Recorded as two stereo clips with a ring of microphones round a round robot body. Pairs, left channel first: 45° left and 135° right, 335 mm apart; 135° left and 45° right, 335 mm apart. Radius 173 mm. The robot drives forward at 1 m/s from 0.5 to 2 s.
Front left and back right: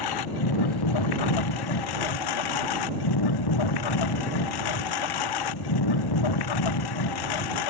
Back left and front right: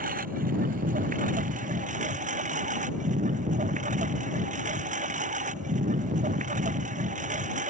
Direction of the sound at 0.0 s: 20° left.